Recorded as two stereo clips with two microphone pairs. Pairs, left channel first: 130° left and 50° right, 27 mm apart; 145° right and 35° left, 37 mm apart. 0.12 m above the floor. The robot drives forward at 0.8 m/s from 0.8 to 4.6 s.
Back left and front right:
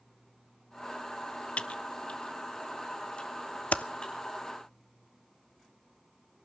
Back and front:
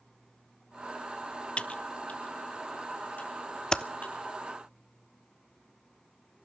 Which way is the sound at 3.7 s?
150° left.